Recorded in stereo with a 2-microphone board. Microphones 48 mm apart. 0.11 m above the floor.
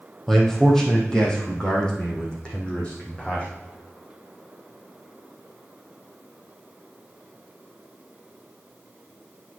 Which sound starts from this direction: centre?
A man speaking, at 0.3 s.